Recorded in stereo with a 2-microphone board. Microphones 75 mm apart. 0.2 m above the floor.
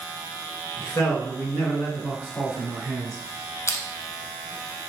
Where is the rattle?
I don't hear a rattle.